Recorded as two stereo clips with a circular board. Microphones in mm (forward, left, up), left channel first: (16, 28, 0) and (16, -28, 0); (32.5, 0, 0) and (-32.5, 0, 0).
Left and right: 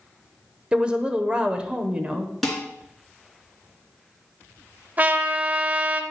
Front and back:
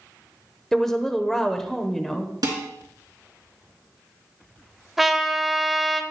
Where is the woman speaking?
75° right, 0.8 m.